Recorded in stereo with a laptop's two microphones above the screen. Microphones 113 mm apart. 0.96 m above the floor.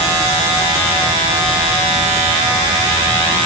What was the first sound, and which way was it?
Only background noise.